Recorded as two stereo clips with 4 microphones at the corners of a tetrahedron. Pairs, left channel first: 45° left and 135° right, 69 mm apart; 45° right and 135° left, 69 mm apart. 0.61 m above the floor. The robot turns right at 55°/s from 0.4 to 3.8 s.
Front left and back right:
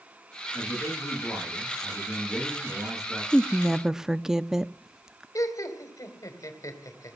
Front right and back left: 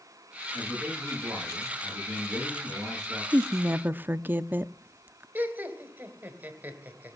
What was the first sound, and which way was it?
A man speaking, 60° left.